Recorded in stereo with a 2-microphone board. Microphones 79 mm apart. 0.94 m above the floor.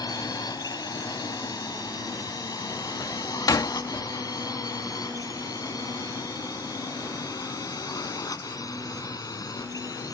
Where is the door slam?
55° left (ahead or behind).